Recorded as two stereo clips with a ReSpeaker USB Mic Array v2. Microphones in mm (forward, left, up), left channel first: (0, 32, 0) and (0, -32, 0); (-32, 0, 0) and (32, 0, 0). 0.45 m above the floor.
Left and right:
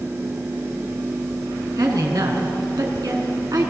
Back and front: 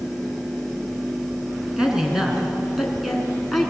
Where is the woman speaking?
80° right, 5.5 m; by 3.7 s 90° right, 5 m.